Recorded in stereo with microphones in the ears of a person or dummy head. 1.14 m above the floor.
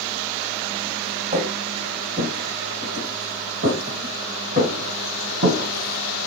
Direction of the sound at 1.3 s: 40° right (ahead or behind).